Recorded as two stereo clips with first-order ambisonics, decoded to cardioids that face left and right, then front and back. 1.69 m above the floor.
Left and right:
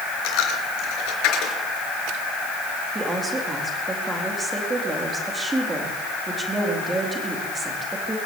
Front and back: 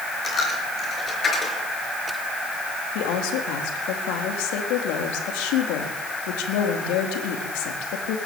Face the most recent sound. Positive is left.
turn(degrees=-10)